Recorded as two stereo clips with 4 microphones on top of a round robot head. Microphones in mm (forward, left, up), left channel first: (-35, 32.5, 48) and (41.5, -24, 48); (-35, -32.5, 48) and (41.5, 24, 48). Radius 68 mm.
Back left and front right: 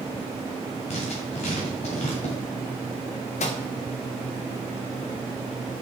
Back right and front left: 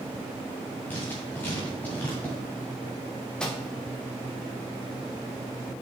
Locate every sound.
0.9 s writing: 150° left, 2.0 m
3.4 s a microwave: 135° left, 1.0 m